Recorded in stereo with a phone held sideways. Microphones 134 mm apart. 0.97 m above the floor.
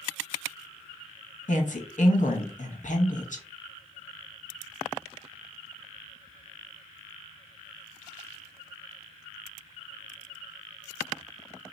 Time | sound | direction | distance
1.5 | a woman speaking | 70° left (ahead or behind) | 1.1 m